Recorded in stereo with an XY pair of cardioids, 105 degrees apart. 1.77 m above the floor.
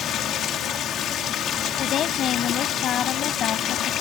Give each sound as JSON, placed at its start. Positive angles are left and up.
{"t": 0.0, "sound": "running water", "azimuth_deg": 70}
{"t": 1.8, "sound": "a woman speaking", "azimuth_deg": 65}